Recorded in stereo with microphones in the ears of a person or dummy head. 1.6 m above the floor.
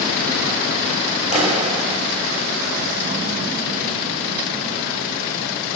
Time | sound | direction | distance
1.3 | a clap | 35° right (ahead or behind) | 4 m